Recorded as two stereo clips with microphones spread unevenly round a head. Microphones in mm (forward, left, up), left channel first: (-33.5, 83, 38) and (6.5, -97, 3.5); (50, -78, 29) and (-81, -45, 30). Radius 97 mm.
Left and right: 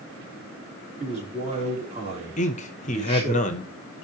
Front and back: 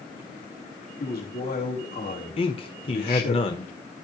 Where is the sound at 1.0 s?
15° right, 3.5 m.